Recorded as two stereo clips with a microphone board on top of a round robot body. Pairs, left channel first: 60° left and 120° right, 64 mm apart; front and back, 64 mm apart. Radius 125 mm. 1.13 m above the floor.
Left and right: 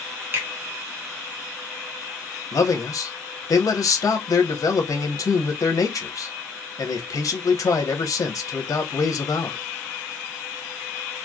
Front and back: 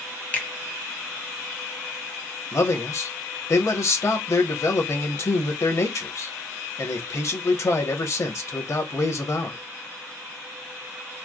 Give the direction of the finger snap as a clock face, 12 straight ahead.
2 o'clock.